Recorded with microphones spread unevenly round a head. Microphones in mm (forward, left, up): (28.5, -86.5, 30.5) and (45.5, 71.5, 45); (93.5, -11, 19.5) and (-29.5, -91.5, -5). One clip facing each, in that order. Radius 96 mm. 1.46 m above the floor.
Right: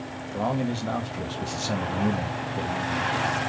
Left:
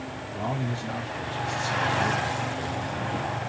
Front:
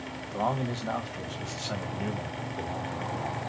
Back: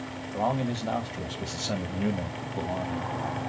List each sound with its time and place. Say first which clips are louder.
0.3 s a man speaking: right 5 dB, back 2 dB; 65° right, 1.3 m; by 3.5 s 125° right, 2.0 m